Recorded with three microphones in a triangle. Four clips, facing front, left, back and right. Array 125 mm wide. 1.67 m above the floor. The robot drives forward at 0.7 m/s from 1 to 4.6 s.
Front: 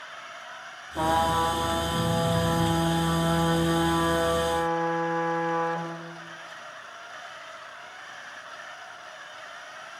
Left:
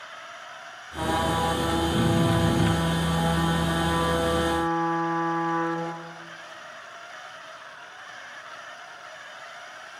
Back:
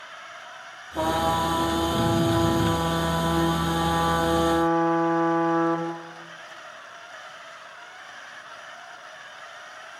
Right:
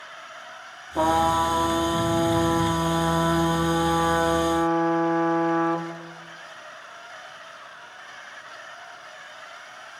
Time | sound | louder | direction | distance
0.9 | a trumpet | right 5 dB, even | 105° right | 4.5 m